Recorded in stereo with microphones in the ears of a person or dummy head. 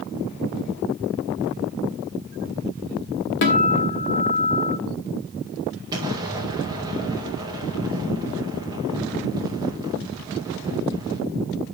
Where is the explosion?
20° right (ahead or behind), 1.9 m.